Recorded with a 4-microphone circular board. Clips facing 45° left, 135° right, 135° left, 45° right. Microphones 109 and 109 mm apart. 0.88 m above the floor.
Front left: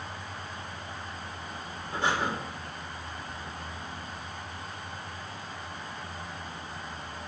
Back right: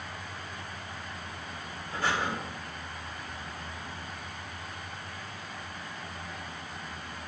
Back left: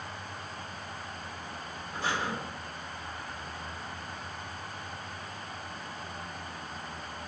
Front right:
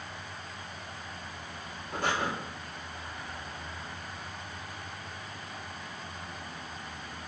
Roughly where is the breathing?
Ahead.